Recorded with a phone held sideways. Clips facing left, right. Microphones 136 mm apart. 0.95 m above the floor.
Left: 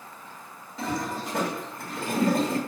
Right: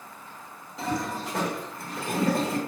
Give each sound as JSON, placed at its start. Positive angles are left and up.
{"t": 0.8, "sound": "a toilet flushing", "side_deg": 0, "distance_m": 1.2}